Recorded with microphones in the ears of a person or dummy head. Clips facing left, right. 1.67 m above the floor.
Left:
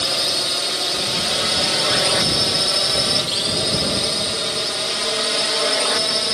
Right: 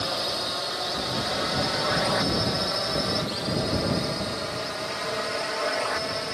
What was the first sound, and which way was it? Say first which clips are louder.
A drone: left 3 dB; 40° left (ahead or behind).